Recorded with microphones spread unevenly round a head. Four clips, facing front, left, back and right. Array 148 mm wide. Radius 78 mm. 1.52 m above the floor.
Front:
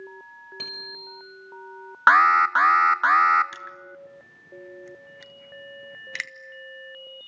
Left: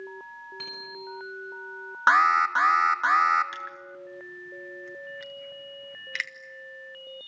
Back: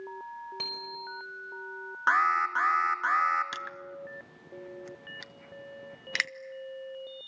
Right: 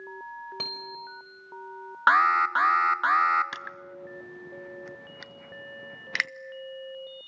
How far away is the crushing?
About 0.5 m.